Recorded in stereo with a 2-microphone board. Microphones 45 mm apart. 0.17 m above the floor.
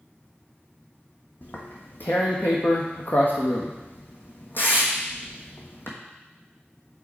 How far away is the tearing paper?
About 1.2 m.